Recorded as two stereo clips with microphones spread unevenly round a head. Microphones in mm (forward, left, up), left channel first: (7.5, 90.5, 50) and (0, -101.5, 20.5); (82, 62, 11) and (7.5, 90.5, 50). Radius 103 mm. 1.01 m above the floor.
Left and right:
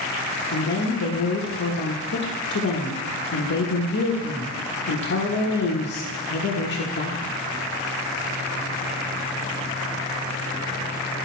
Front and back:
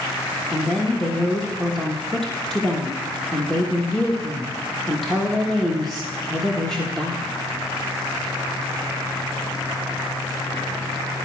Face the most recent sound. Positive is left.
turn(degrees=55)